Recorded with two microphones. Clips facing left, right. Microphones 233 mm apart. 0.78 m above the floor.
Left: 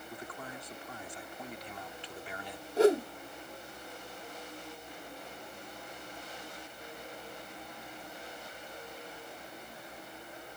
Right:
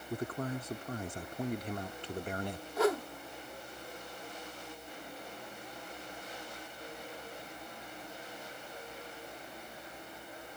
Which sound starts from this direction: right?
A man speaking, at 0.1 s.